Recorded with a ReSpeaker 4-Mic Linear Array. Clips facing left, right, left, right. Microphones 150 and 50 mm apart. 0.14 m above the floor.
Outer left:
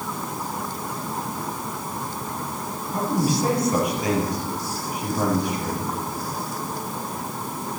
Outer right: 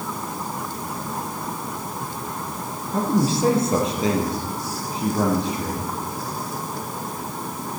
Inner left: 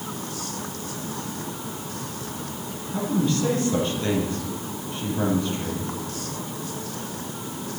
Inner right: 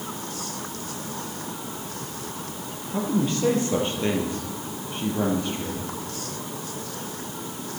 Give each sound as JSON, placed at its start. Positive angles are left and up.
{"t": 2.9, "sound": "a man speaking", "side_deg": -30, "distance_m": 4.0}